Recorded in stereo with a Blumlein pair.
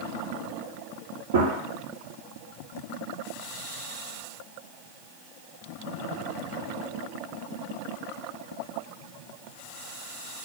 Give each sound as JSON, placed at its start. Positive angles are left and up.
{"t": 1.3, "sound": "a gunshot", "azimuth_deg": -65, "distance_m": 0.7}